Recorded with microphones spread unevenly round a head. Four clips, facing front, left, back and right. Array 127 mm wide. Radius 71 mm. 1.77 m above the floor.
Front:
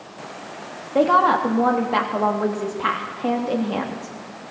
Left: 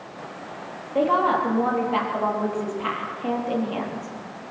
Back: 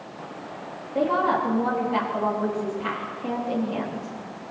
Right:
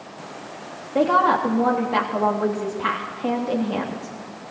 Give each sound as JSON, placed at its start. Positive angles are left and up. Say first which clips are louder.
{"t": 0.9, "sound": "a woman speaking", "louder": "right 2 dB, front 6 dB", "azimuth_deg": 10, "distance_m": 3.0}